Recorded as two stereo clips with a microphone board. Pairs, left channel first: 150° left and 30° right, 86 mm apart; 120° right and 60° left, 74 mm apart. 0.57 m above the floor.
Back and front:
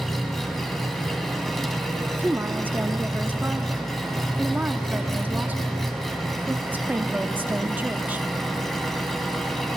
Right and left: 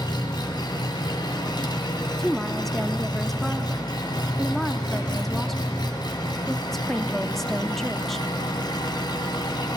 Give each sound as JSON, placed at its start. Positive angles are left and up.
{"t": 0.0, "sound": "an engine running", "azimuth_deg": -125, "distance_m": 1.4}
{"t": 2.2, "sound": "a woman speaking", "azimuth_deg": -45, "distance_m": 0.6}